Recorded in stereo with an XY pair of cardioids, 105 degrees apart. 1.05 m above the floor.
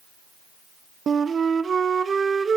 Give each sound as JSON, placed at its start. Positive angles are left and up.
{"t": 1.1, "sound": "a flute", "azimuth_deg": -40, "distance_m": 0.8}